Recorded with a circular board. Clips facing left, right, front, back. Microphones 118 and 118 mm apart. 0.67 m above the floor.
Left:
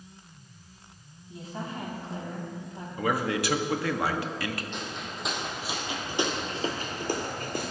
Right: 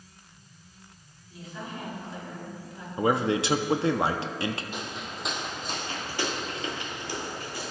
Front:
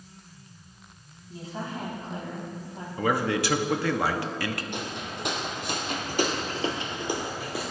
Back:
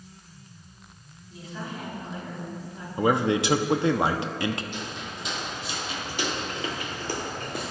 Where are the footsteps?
10° right, 1.8 m; by 7.7 s 90° left, 1.2 m.